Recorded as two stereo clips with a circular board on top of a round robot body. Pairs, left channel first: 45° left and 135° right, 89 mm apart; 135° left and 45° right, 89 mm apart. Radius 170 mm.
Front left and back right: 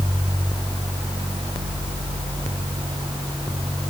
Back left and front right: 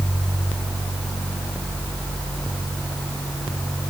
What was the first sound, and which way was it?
Only background noise.